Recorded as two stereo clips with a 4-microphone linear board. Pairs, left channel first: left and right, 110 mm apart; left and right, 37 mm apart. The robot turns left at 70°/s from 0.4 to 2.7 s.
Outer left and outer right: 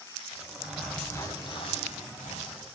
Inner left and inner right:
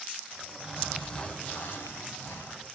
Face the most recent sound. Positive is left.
turn(degrees=50)